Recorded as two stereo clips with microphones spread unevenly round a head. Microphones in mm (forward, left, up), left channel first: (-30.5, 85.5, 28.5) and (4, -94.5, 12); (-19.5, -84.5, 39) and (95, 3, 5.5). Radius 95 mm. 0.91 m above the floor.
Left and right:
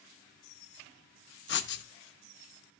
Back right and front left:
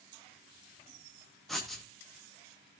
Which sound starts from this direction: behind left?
Writing, at 1.5 s.